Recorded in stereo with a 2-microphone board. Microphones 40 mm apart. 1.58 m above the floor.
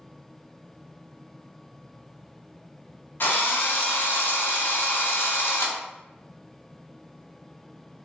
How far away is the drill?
About 0.6 m.